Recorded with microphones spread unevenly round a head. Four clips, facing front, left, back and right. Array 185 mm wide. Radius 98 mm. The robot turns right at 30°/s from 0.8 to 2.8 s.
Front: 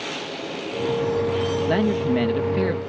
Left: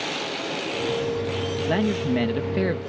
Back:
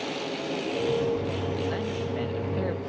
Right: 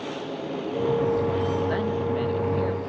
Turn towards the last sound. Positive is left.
turn(degrees=60)